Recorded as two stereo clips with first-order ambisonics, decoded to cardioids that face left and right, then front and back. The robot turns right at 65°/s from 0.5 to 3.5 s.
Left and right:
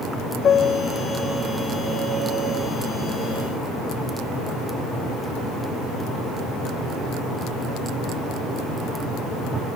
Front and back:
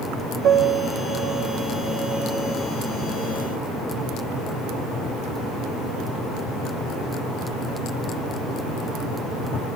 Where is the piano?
150° left, 0.9 m; by 2.7 s 65° right, 0.9 m.